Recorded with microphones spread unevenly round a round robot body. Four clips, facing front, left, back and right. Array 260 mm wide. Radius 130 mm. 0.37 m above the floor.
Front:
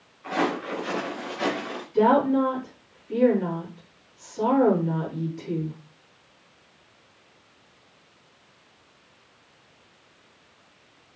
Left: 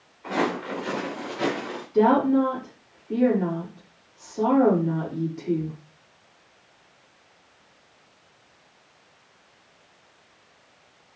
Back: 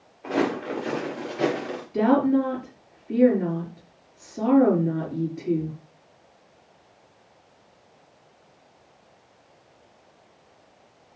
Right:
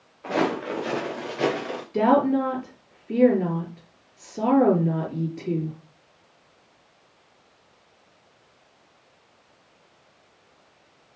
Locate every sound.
0.2 s footsteps: 145° right, 5.5 m; by 1.8 s 140° right, 6 m
1.9 s a woman speaking: 130° right, 6.5 m